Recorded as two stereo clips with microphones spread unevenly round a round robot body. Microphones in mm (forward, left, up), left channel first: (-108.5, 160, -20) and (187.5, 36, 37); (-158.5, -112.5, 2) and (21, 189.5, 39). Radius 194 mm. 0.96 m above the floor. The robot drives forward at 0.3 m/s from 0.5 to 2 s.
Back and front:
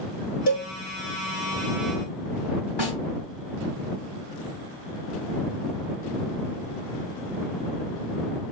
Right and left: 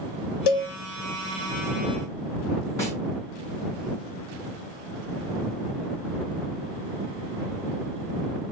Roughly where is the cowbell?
Behind right.